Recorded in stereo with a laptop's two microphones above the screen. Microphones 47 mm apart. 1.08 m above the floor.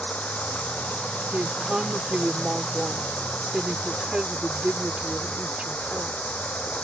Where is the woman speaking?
25° right (ahead or behind).